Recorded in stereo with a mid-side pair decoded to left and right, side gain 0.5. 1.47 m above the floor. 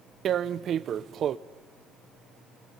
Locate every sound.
0.2 s tearing paper: 55° right, 0.6 m